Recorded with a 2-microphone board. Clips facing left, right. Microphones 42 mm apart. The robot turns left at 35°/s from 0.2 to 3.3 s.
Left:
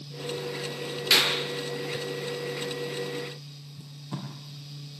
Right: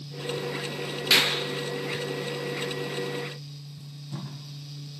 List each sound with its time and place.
1.1 s a clap: 15° right (ahead or behind), 4 m; by 1.4 s 5° right (ahead or behind), 4 m
3.8 s tape being pulled: 80° left, 8 m